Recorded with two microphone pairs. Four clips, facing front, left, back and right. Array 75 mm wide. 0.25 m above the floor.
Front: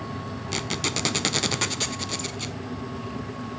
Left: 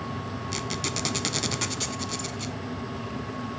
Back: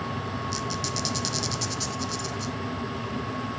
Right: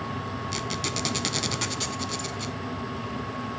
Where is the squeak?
Straight ahead, 0.6 m.